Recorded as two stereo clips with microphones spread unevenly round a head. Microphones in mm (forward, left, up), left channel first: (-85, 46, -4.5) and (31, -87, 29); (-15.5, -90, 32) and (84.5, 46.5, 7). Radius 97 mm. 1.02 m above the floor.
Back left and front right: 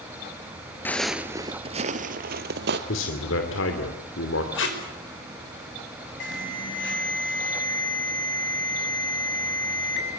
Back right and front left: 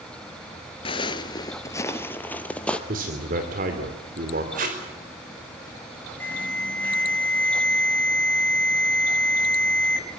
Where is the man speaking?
105° left, 2.5 m.